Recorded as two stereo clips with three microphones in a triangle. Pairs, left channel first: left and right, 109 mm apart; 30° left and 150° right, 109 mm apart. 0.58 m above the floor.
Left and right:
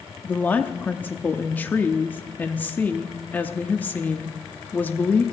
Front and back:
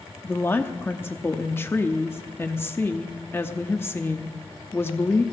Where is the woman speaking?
50° left, 0.7 m.